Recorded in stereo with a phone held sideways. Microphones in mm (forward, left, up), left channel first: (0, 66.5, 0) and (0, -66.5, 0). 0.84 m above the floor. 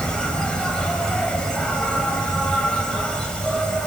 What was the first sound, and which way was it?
An insect, 5° left (ahead or behind).